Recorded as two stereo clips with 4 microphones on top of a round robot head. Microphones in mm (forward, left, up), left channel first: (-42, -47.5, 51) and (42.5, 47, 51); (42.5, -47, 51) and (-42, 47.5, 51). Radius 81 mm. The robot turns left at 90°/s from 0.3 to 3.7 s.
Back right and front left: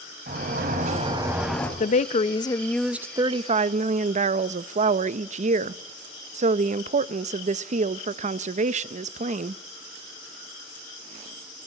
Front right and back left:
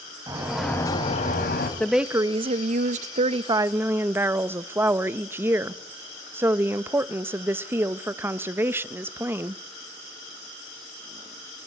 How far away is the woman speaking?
About 0.7 m.